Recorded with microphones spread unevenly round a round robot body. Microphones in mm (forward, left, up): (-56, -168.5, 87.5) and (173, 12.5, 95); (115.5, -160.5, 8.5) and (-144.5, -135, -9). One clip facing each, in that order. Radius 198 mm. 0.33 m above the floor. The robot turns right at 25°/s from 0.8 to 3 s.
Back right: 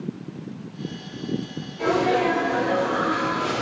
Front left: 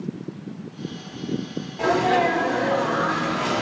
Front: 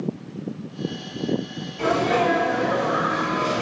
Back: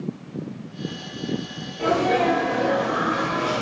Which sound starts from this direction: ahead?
A sneeze, at 1.8 s.